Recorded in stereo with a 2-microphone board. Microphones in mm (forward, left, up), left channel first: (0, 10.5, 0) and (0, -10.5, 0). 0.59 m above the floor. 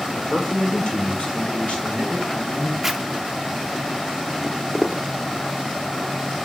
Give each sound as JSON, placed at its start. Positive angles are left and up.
{"t": 0.1, "sound": "a man speaking", "side_deg": 30, "distance_m": 2.0}
{"t": 2.8, "sound": "a zipper", "side_deg": -15, "distance_m": 0.5}
{"t": 4.4, "sound": "footsteps", "side_deg": -20, "distance_m": 0.6}